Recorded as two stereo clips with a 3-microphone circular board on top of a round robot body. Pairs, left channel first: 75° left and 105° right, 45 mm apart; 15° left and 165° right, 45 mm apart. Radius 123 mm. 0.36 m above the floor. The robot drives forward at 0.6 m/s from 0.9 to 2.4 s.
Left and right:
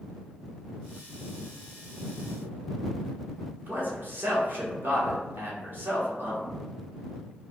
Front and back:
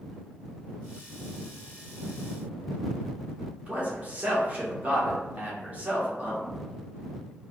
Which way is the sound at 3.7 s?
115° right.